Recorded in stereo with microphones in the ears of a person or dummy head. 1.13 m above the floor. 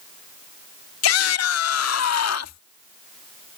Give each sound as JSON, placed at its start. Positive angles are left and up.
{"t": 1.0, "sound": "a shout", "side_deg": 75}